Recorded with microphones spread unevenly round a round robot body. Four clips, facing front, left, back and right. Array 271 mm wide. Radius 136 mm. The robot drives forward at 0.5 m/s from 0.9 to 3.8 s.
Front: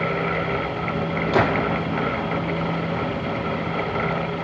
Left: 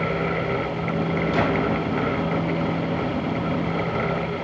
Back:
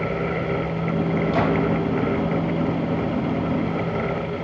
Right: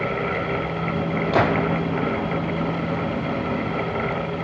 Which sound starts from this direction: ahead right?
A gunshot, at 1.3 s.